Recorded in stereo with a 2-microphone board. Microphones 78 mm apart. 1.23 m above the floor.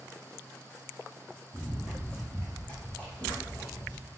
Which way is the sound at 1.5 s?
20° right (ahead or behind).